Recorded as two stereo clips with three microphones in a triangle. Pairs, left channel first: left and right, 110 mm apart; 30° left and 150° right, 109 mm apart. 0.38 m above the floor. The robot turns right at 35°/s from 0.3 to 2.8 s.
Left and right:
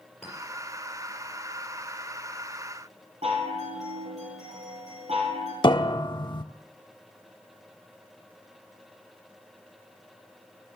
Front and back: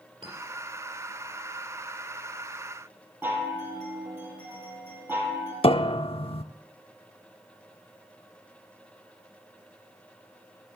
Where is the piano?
50° left, 0.5 m.